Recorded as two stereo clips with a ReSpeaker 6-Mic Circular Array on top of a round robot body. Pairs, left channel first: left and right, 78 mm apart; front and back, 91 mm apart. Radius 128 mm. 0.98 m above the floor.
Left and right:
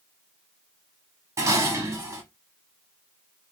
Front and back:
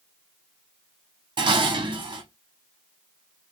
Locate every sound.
1.4 s dishes clattering: 150° right, 1.4 m